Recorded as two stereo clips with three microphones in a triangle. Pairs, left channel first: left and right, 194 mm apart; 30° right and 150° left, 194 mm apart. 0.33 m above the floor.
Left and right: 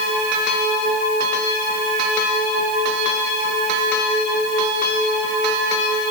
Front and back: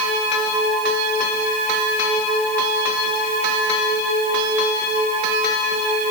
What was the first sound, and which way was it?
Only background noise.